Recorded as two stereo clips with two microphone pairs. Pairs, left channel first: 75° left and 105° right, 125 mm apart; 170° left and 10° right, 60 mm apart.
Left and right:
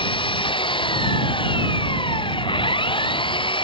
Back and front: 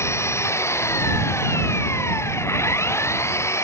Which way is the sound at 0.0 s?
125° left.